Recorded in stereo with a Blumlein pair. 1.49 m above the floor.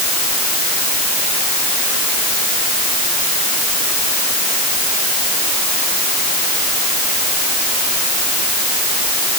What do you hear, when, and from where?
Only background noise.